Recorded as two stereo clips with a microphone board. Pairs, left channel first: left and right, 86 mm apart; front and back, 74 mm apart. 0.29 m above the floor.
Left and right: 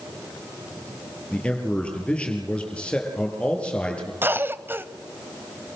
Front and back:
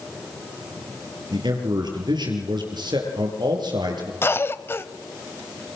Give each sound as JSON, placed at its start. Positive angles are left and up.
{"t": 1.3, "sound": "a man speaking", "azimuth_deg": 165, "distance_m": 6.5}
{"t": 4.2, "sound": "a cough", "azimuth_deg": -40, "distance_m": 1.3}